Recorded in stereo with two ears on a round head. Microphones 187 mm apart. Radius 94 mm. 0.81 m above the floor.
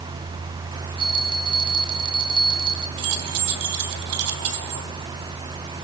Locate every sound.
1.0 s a bell: 25° right (ahead or behind), 4 m
3.0 s keys jangling: 80° right, 3 m